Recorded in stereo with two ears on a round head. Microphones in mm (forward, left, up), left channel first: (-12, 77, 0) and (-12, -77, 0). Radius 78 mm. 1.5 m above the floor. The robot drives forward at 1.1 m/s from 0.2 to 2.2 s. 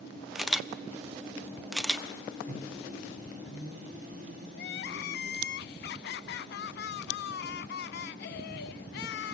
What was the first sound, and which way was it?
A camera shutter, centre (ahead or behind).